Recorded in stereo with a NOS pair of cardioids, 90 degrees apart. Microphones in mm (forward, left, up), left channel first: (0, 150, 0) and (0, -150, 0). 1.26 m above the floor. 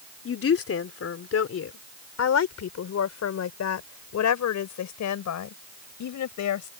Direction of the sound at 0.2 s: 45° left.